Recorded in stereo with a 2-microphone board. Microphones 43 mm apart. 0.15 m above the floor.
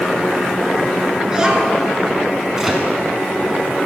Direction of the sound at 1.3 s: 15° right (ahead or behind).